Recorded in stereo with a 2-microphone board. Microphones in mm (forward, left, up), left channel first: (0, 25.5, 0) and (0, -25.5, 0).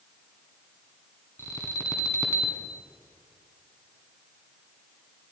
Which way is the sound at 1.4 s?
60° left (ahead or behind).